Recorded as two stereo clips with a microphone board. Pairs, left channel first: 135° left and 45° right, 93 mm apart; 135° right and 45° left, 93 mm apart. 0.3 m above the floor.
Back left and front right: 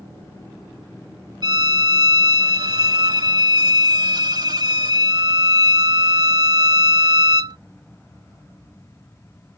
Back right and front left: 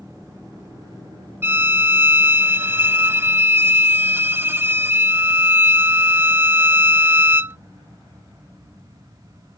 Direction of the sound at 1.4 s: 15° right.